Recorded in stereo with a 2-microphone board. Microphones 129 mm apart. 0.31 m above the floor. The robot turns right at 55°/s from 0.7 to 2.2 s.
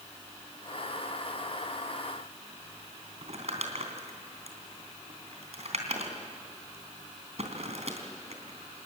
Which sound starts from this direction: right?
Crumpling, at 3.2 s.